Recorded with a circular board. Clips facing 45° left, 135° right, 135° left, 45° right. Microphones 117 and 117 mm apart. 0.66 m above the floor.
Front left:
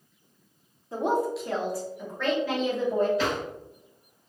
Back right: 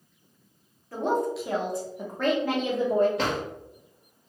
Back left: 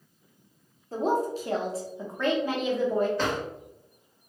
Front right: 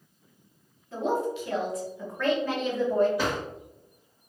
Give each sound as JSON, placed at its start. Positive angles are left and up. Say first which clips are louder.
{"t": 0.9, "sound": "a woman speaking", "louder": "even, back left 1 dB", "azimuth_deg": 105, "distance_m": 0.8}
{"t": 3.2, "sound": "a drawer", "louder": "even, even", "azimuth_deg": -125, "distance_m": 1.3}